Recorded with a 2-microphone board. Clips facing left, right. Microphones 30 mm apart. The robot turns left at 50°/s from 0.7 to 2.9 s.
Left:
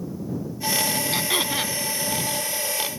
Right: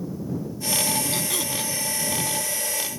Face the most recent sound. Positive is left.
turn(degrees=65)